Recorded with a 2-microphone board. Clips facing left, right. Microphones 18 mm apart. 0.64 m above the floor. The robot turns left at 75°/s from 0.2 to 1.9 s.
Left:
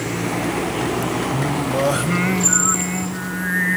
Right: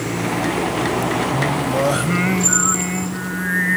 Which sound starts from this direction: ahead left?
Singing, at 1.3 s.